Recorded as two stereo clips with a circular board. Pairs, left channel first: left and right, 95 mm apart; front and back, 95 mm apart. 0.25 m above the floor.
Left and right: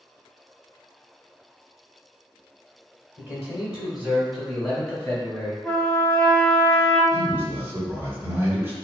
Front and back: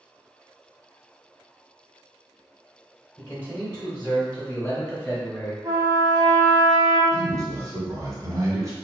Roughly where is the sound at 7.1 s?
Behind right.